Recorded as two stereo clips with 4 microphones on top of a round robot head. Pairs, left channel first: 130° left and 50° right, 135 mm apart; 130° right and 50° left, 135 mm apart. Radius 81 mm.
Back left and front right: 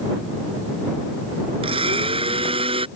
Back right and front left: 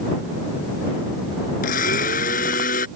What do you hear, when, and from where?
1.6 s a blender: 100° right